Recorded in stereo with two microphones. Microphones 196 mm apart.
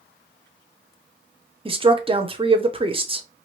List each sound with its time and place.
1.6 s a woman speaking: 30° right (ahead or behind), 0.5 m